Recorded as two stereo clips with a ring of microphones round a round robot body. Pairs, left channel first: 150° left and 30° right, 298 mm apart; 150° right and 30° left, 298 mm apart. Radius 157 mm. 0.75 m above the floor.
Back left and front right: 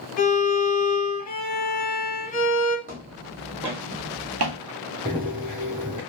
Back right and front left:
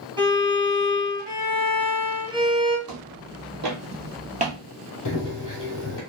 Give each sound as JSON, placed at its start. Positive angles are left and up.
{"t": 0.2, "sound": "a violin", "azimuth_deg": 100, "distance_m": 1.3}
{"t": 2.9, "sound": "footsteps", "azimuth_deg": 35, "distance_m": 1.4}
{"t": 5.0, "sound": "running footsteps", "azimuth_deg": -110, "distance_m": 1.2}